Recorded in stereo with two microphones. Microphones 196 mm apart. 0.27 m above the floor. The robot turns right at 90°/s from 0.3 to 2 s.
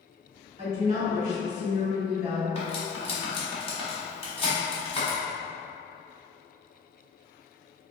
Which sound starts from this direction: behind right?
A woman speaking, at 0.6 s.